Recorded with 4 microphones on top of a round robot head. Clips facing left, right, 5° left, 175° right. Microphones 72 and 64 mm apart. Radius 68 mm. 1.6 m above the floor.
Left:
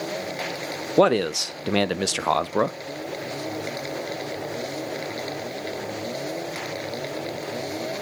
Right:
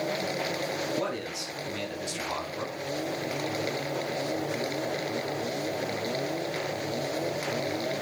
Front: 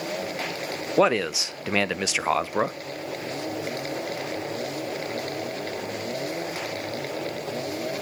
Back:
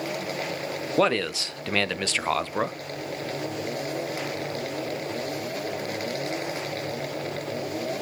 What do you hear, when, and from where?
1.0 s a man speaking: 80° left, 0.6 m